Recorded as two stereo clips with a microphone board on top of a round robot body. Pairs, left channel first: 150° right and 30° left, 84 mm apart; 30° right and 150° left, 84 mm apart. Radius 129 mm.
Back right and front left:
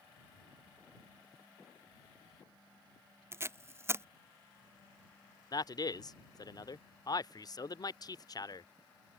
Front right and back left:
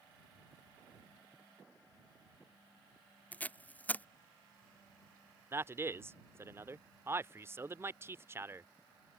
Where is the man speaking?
160° right.